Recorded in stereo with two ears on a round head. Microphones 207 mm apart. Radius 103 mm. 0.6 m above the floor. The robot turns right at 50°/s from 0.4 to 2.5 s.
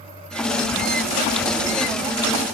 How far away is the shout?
No shout in this recording.